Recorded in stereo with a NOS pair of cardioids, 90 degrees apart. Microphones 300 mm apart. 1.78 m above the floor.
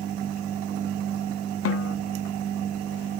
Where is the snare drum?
50° left, 1.0 m.